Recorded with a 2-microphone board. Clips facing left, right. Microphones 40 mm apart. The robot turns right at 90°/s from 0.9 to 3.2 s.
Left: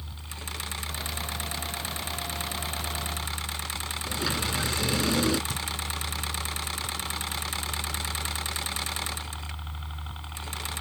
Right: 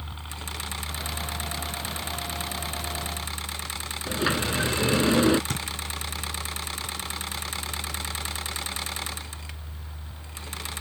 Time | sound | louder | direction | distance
0.0 | a helicopter | right 3 dB | 145° right | ?
4.1 | a sliding door | right 5 dB | 30° right (ahead or behind) | ?
5.5 | a thud | right 2 dB | 70° right (ahead or behind) | ?